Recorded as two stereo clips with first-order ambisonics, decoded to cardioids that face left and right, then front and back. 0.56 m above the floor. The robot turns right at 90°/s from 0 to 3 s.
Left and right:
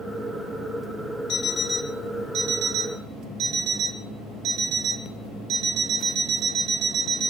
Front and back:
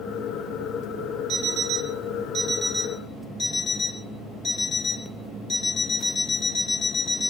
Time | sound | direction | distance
1.3 | an alarm clock | 135° left | 0.6 m